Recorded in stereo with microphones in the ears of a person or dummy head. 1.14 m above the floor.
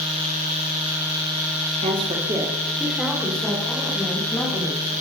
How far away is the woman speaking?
About 1.5 m.